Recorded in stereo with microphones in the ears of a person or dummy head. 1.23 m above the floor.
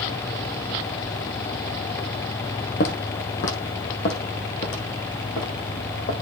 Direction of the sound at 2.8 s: 45° left (ahead or behind).